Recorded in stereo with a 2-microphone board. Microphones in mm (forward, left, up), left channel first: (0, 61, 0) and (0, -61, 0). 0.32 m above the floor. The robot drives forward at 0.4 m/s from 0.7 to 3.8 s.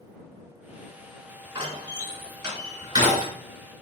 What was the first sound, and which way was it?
A door slam, 40° right (ahead or behind).